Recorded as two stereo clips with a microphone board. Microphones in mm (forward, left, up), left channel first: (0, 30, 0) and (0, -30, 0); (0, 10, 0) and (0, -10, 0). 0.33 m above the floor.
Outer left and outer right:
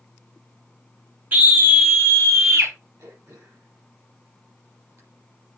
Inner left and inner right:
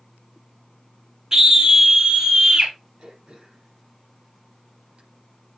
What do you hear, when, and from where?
1.3 s a scream: 30° right (ahead or behind), 1.1 m; by 2.7 s 45° right (ahead or behind), 1.7 m
3.0 s throat clearing: 65° right (ahead or behind), 6.5 m